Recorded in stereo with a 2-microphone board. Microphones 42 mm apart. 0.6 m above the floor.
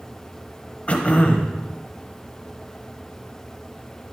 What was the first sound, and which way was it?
Throat clearing, 35° left (ahead or behind).